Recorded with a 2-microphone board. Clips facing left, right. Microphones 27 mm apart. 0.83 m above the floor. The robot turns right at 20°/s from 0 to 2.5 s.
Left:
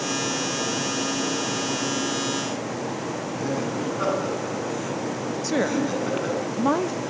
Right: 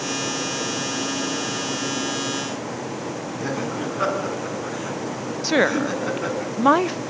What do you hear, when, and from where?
3.4 s laughter: 15° right (ahead or behind), 9 m
5.4 s a woman speaking: 40° right (ahead or behind), 0.5 m